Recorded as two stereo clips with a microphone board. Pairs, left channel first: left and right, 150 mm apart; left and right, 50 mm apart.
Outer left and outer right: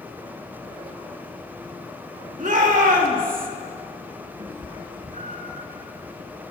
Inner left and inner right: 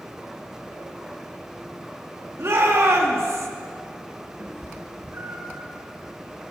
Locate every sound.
2.4 s a shout: 65° right (ahead or behind), 2.0 m; by 3.5 s 70° right (ahead or behind), 1.1 m
4.4 s a cat meowing: 55° right (ahead or behind), 2 m